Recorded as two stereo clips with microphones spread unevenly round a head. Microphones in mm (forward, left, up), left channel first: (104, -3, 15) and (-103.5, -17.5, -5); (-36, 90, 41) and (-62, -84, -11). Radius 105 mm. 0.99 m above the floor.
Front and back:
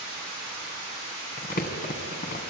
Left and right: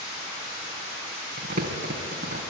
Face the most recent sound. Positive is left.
turn(degrees=-40)